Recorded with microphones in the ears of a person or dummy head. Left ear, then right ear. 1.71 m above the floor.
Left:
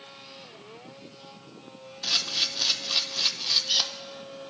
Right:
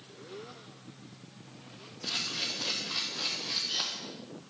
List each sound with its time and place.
2.0 s a camera shutter: 35° left (ahead or behind), 0.7 m